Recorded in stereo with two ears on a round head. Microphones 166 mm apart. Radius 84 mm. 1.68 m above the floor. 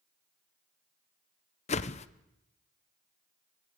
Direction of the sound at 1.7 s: 35° left (ahead or behind).